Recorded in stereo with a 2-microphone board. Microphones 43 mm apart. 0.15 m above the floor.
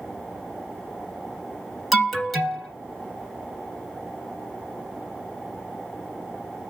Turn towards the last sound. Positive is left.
turn(degrees=0)  # may be behind; listen again after turning